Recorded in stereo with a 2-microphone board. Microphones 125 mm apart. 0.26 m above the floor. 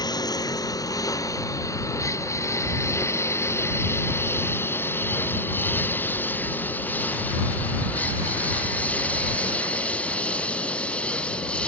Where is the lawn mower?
30° left (ahead or behind); by 11.7 s 10° left (ahead or behind).